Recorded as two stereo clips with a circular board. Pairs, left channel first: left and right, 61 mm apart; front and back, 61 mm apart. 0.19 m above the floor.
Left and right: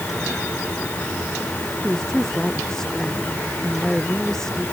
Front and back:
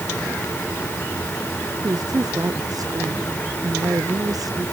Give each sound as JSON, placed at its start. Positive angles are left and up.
{"t": 1.8, "sound": "a woman speaking", "azimuth_deg": 170}